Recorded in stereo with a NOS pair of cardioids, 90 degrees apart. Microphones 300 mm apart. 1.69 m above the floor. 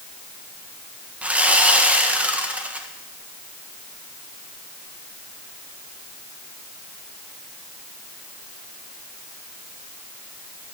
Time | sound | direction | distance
1.2 | sawing | 5° right | 1.8 m